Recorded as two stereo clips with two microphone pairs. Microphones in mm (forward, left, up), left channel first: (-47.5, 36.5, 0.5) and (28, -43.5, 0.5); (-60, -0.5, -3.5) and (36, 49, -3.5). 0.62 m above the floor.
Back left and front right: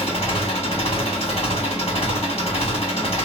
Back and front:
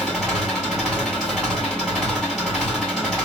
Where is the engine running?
120° left, 1.6 m.